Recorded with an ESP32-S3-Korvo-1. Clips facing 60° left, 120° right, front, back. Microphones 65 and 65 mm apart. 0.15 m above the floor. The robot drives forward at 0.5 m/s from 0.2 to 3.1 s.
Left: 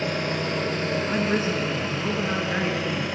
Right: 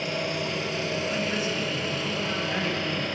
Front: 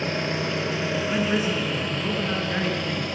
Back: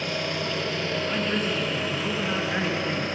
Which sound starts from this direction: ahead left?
An engine running, at 0.0 s.